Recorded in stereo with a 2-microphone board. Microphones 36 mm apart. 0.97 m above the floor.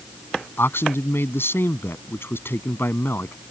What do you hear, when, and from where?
0.6 s a man speaking: 75° left (ahead or behind)